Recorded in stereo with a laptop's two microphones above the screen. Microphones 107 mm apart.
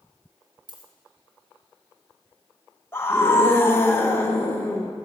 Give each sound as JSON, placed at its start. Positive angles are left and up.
{"t": 0.7, "sound": "a dropped coin", "side_deg": -45, "distance_m": 2.0}
{"t": 2.9, "sound": "a scream", "side_deg": 20, "distance_m": 1.1}